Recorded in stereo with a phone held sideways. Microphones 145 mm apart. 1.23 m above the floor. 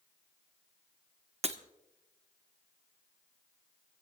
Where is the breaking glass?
45° right (ahead or behind), 1.0 m.